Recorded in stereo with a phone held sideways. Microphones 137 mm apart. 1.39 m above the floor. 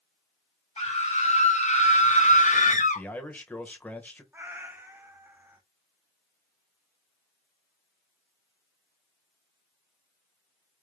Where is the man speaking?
10° left (ahead or behind), 1.0 m.